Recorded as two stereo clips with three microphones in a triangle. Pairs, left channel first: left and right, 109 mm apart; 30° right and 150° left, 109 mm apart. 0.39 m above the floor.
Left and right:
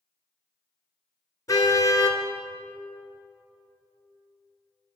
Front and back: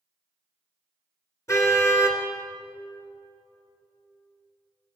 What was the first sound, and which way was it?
A car horn, 30° left.